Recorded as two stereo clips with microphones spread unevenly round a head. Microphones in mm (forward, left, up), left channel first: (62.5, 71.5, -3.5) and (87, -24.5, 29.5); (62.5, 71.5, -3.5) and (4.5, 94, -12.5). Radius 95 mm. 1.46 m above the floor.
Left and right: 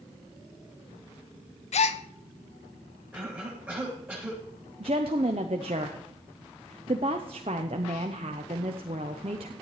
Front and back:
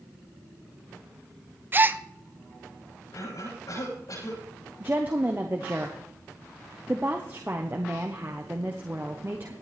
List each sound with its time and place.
1.7 s a gasp: 100° left, 0.9 m
3.1 s a cough: straight ahead, 9 m
4.8 s a woman speaking: 130° right, 0.7 m